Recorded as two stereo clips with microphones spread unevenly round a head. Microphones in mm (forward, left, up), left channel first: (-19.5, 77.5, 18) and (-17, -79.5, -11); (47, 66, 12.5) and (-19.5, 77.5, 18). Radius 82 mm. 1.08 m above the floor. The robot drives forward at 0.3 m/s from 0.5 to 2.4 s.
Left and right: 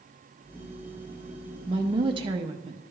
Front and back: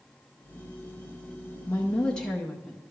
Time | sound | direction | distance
1.7 | a woman speaking | 60° right | 0.7 m